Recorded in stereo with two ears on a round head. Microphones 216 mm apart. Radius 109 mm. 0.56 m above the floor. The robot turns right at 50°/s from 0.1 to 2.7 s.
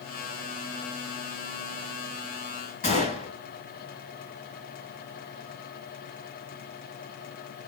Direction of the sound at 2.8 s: 40° left (ahead or behind).